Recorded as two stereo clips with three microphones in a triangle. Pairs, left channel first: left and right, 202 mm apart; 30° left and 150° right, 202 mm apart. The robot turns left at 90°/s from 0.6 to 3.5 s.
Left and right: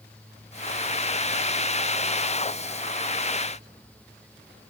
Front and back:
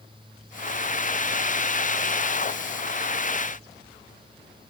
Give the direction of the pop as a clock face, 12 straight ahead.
No pop in this recording.